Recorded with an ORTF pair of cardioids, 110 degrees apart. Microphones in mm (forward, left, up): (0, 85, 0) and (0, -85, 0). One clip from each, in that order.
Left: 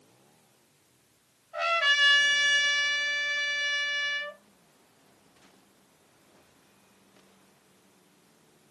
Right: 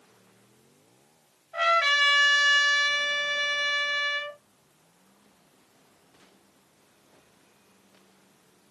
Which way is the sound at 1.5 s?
Straight ahead.